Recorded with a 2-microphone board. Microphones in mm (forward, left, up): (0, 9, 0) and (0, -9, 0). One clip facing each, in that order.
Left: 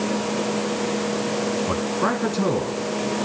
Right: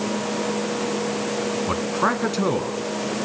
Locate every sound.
1.7 s a man speaking: 20° right (ahead or behind), 1.7 m